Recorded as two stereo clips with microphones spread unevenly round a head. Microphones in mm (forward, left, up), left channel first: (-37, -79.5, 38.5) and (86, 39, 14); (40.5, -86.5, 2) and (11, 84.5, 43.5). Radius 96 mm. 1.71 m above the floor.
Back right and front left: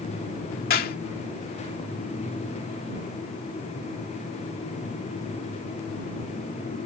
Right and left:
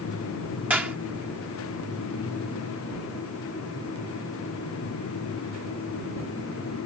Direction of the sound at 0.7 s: Straight behind.